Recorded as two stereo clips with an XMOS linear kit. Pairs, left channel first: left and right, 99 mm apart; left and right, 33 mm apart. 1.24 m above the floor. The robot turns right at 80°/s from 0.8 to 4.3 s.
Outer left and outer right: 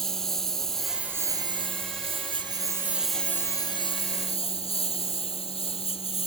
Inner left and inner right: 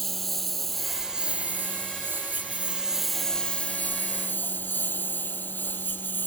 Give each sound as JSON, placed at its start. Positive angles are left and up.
{"t": 0.0, "sound": "a lawn mower", "azimuth_deg": 175}